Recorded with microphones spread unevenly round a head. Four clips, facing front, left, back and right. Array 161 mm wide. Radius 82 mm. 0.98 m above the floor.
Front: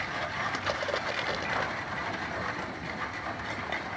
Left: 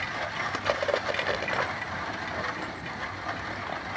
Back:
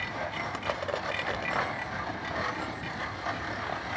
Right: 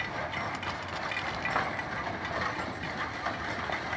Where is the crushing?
80° left.